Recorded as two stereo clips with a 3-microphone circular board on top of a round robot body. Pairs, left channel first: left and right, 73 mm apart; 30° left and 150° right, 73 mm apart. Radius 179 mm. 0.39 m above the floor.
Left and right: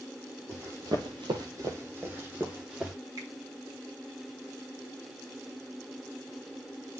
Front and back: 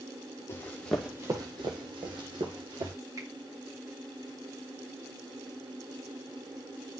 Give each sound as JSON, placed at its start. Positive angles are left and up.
{"t": 0.5, "sound": "running footsteps", "azimuth_deg": -30, "distance_m": 1.0}
{"t": 3.2, "sound": "a finger snap", "azimuth_deg": -115, "distance_m": 3.0}